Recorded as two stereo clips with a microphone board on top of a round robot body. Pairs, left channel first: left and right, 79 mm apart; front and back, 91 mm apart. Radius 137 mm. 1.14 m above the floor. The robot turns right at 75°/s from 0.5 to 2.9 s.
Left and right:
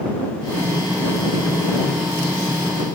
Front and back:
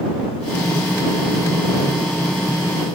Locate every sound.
Only background noise.